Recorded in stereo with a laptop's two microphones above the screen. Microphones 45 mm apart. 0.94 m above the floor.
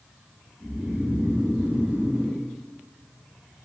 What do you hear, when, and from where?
0.6 s snoring: 65° right (ahead or behind), 1.2 m